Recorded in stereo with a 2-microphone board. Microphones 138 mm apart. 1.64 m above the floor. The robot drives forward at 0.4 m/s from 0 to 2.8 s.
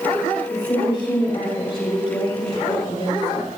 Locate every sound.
0.5 s a woman speaking: 45° left (ahead or behind), 7.5 m; by 3.5 s 50° left (ahead or behind), 7 m